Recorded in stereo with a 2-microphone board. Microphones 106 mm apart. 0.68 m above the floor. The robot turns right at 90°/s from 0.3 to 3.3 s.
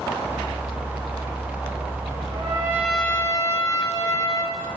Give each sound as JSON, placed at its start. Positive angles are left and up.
{"t": 2.3, "sound": "a trumpet", "azimuth_deg": -55, "distance_m": 5.5}